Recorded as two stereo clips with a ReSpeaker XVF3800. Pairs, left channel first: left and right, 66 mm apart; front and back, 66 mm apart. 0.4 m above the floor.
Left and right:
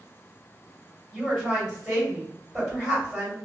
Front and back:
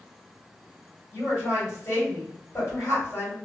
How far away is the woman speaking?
About 1.7 m.